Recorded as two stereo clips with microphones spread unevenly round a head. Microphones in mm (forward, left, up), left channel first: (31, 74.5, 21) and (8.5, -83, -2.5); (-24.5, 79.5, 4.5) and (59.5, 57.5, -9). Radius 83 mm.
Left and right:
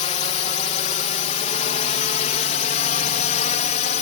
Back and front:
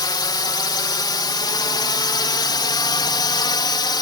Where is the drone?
135° left; by 4.0 s 130° left.